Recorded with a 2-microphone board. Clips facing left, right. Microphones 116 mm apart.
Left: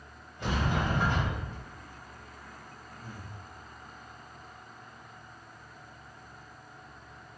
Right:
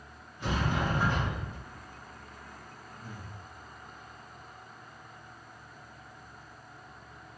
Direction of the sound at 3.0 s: 20° right (ahead or behind).